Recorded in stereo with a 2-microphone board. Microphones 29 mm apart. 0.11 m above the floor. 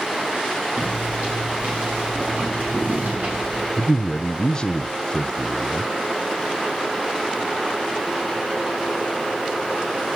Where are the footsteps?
80° right, 9.5 m; by 3.7 s 70° right (ahead or behind), 10.5 m.